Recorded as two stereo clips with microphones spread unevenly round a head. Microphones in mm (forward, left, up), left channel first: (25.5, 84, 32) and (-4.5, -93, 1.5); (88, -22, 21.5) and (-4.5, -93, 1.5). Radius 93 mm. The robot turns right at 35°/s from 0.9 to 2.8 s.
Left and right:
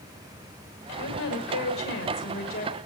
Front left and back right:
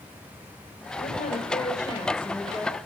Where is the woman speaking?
70° left, 6 m; by 2.8 s 130° left, 6 m.